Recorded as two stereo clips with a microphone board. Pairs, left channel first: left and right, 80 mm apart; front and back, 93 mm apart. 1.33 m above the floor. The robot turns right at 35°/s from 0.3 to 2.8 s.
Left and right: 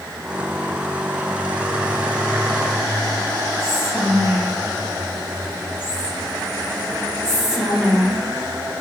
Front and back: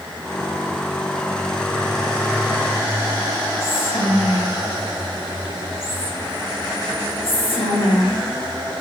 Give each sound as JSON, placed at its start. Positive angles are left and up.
{"t": 3.6, "sound": "whispering", "azimuth_deg": -15, "distance_m": 1.9}